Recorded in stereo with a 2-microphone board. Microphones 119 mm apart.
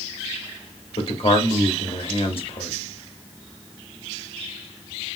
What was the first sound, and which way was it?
A man speaking, 50° left (ahead or behind).